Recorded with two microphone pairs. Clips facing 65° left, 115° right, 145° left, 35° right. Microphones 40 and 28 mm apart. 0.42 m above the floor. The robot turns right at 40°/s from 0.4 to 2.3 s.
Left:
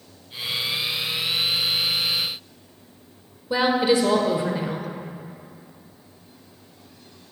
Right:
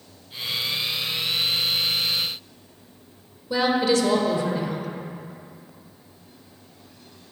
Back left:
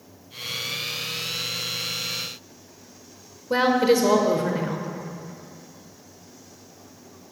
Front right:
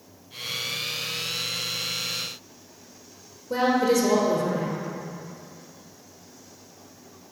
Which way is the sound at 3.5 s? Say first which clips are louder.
Left 1 dB, back left 2 dB; 130° left.